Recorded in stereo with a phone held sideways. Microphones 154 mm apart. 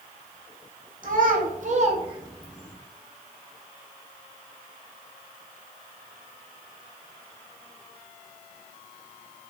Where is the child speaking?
60° right (ahead or behind), 0.8 m; by 2.8 s centre (ahead or behind), 0.6 m.